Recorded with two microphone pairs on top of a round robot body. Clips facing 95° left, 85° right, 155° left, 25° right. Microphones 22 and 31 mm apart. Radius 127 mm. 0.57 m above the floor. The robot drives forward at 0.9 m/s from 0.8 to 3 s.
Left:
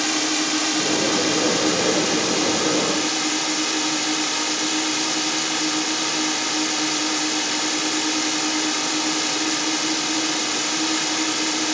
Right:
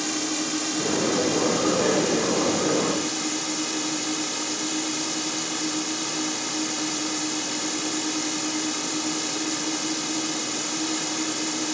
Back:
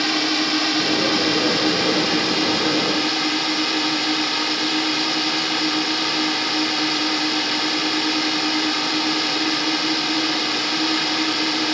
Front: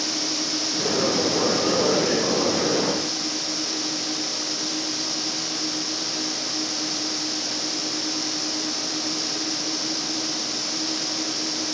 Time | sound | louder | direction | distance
0.0 | a drone | left 5 dB, back 7 dB | 155° left | ?